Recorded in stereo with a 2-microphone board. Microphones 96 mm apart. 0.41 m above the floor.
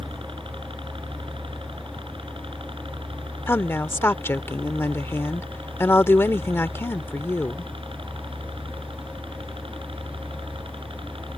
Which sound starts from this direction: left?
A woman speaking, at 3.5 s.